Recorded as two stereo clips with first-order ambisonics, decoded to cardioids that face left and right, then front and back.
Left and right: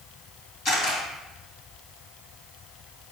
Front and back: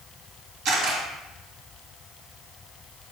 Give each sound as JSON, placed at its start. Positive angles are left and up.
{"t": 0.7, "sound": "a camera shutter", "azimuth_deg": 140, "distance_m": 2.5}